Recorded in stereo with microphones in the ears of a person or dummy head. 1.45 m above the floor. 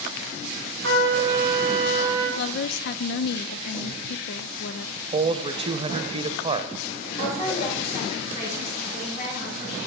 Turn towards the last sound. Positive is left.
turn(degrees=45)  # may be behind; listen again after turning